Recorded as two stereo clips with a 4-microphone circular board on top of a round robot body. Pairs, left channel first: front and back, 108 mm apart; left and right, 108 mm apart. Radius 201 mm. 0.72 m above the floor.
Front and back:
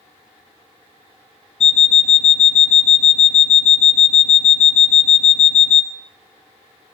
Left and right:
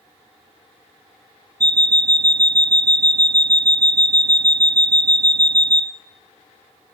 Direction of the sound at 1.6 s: 35° right.